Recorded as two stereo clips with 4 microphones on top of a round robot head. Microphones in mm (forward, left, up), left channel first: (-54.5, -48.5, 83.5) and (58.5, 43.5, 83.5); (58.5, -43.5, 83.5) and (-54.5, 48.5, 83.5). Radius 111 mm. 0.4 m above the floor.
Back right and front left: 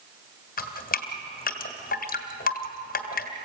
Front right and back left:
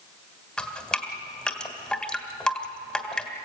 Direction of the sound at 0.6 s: 125° right.